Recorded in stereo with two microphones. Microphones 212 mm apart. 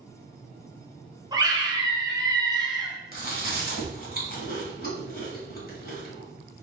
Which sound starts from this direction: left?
Chewing, at 3.1 s.